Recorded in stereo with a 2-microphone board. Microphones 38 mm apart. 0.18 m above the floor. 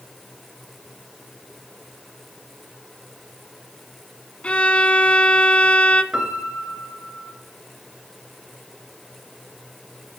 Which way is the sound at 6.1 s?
20° right (ahead or behind).